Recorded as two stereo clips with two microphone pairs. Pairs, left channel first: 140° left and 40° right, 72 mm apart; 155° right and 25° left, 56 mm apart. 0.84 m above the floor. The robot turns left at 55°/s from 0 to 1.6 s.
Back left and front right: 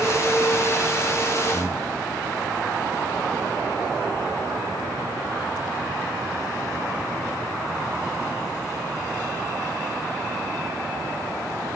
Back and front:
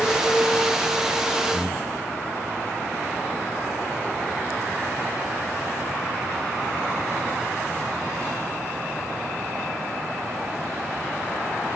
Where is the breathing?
130° left, 1.3 m; by 2.0 s 125° left, 1.3 m.